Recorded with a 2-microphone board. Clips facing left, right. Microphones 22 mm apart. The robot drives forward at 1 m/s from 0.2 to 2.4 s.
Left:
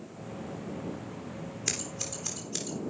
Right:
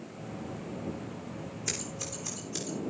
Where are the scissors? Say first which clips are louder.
Left 2 dB; 35° left (ahead or behind), 8 m.